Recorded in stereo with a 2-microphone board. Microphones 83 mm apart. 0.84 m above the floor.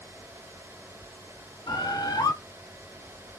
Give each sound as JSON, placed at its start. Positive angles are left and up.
{"t": 1.7, "sound": "a bird", "side_deg": 60, "distance_m": 1.1}